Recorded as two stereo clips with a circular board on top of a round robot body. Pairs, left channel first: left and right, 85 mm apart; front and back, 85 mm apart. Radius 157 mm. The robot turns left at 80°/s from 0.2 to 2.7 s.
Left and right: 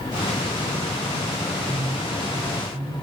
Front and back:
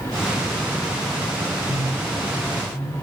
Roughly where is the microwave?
Ahead.